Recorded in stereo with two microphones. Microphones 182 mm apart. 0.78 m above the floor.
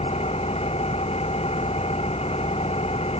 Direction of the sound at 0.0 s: 35° left (ahead or behind).